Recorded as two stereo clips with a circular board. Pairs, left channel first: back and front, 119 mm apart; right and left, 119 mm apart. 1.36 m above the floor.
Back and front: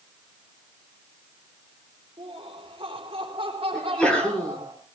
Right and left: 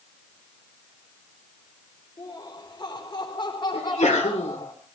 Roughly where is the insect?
No insect in this recording.